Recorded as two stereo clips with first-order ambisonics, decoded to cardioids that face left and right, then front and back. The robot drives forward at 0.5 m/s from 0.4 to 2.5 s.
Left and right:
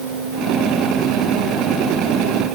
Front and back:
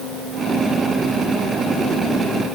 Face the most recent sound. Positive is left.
No sound to turn to.